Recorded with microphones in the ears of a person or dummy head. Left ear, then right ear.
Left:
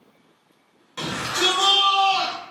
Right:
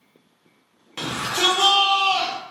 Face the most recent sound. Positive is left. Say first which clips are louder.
# right 1 dB
turn(degrees=-25)  # may be behind; listen again after turning